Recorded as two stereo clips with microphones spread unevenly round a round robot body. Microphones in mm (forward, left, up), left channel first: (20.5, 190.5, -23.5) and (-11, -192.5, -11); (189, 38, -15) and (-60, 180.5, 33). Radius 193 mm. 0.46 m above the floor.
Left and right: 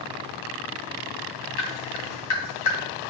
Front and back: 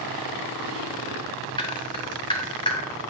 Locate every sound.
1.6 s dripping: 40° left, 3 m